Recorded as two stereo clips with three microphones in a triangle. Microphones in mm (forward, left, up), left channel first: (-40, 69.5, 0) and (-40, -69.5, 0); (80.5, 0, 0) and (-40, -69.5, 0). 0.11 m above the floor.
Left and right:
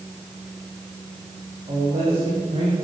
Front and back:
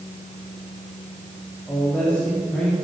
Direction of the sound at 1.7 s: 45° right.